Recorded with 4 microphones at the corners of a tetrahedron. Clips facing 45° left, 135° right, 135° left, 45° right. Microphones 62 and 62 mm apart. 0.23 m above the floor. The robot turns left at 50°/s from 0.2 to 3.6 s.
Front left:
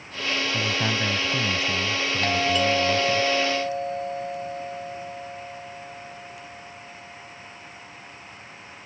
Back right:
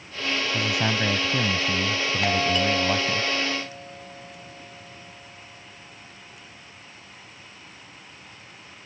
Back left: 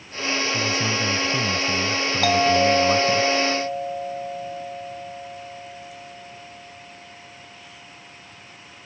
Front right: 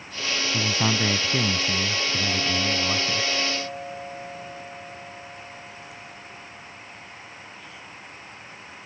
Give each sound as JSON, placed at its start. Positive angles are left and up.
{"t": 0.5, "sound": "a man speaking", "azimuth_deg": -50}
{"t": 2.2, "sound": "a doorbell", "azimuth_deg": 145}